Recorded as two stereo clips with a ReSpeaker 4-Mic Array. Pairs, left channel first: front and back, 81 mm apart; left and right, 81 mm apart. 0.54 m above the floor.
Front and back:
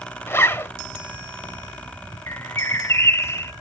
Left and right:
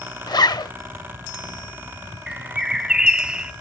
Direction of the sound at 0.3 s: 60° left.